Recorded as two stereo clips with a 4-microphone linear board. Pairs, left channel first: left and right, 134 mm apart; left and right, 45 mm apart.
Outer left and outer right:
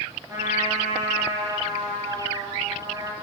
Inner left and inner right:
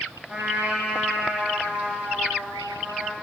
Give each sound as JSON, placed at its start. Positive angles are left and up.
{"t": 0.3, "sound": "a trumpet", "side_deg": -25, "distance_m": 2.0}